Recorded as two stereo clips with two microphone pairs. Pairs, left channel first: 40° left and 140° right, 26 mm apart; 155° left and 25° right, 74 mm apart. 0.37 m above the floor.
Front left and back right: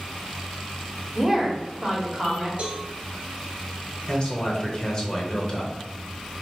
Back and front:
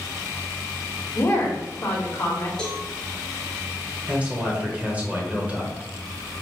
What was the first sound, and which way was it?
A woman speaking, 160° left.